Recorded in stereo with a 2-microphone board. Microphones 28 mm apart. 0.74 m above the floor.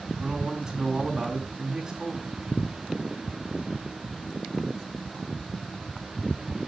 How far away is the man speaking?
About 6 m.